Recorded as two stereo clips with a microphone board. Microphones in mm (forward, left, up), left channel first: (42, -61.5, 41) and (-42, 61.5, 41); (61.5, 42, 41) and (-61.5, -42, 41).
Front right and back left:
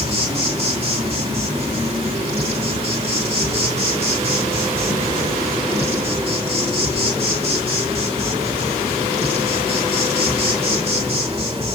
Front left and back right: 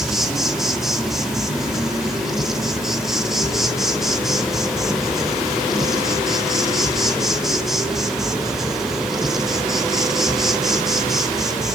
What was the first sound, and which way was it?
An insect, 130° left.